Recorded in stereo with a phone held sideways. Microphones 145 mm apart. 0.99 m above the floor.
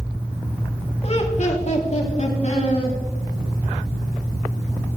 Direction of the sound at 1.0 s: 45° left (ahead or behind).